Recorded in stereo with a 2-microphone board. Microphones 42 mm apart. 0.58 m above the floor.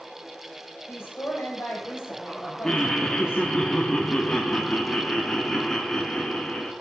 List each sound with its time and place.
0.9 s a woman speaking: 60° left (ahead or behind), 2 m
2.6 s laughter: 10° left (ahead or behind), 0.6 m